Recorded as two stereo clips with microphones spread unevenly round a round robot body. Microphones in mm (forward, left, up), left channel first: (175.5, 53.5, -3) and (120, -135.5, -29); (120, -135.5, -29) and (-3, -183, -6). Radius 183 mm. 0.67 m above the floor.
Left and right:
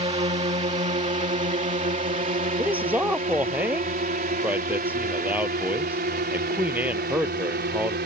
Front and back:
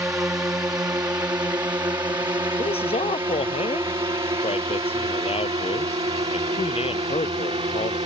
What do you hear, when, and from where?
0.0 s a drone: 105° right; by 8.1 s 130° right
2.6 s a man speaking: 25° right